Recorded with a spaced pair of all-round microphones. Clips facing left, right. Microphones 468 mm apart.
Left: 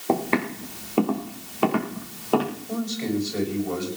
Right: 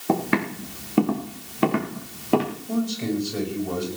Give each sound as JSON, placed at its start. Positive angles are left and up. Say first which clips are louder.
{"t": 0.1, "sound": "footsteps", "louder": "right 1 dB", "side_deg": -30, "distance_m": 4.5}
{"t": 2.7, "sound": "a man speaking", "louder": "right 3 dB", "side_deg": -55, "distance_m": 6.5}